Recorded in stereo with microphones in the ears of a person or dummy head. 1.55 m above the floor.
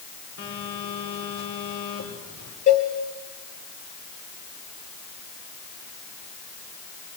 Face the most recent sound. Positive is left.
turn(degrees=35)  # may be behind; listen again after turning